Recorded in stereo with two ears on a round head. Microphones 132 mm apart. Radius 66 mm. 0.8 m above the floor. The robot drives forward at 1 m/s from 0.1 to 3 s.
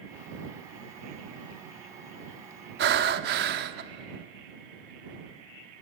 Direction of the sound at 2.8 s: 80° right.